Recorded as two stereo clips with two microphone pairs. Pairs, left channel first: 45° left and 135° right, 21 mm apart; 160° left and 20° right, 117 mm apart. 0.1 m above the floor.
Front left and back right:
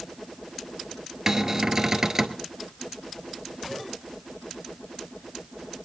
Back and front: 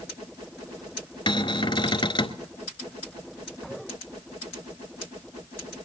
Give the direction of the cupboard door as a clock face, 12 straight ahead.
6 o'clock.